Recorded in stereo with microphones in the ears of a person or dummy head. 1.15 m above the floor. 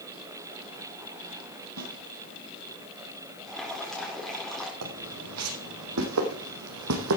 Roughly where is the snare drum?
Right.